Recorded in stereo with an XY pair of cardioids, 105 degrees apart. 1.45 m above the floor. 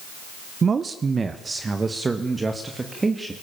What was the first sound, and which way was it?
A man speaking, 35° right.